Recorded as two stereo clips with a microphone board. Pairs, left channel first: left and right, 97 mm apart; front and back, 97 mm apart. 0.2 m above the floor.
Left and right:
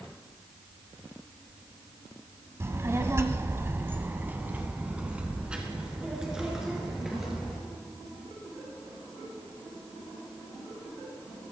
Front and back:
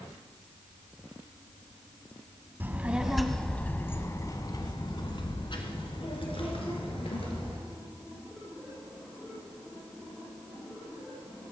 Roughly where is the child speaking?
Behind right.